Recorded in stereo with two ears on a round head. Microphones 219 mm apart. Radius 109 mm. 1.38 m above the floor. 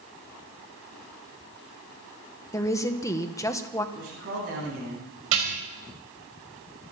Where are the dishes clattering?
65° right (ahead or behind), 5.5 m.